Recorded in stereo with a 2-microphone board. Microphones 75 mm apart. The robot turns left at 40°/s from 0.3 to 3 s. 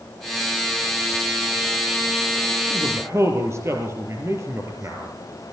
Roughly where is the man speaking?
Right.